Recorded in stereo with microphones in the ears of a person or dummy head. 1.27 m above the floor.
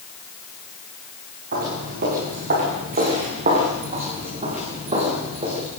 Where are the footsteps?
50° right (ahead or behind), 7 m; by 5.7 s 30° right (ahead or behind), 7 m.